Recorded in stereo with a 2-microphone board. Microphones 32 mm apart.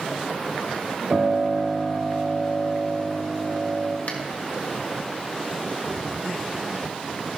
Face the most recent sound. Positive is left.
turn(degrees=60)  # may be behind; listen again after turning